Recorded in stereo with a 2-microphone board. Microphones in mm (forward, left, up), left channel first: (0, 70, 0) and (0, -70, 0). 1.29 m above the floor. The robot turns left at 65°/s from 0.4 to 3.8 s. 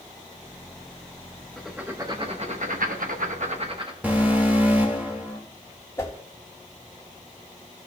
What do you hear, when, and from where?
1.6 s writing: 5° left, 1.0 m; by 3.9 s 140° right, 1.0 m
4.0 s an alarm: 15° right (ahead or behind), 1.7 m
6.0 s a whoosh: 20° left (ahead or behind), 1.5 m